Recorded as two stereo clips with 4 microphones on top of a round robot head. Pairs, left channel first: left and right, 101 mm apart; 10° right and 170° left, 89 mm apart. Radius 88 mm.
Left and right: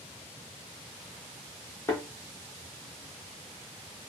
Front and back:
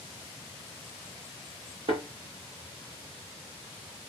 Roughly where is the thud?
Behind left.